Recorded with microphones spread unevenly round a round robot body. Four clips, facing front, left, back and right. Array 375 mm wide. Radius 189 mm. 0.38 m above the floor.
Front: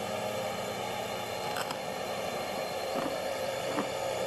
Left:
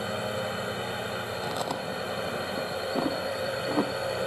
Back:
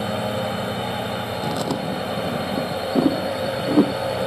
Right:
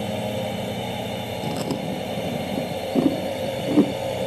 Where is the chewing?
140° right.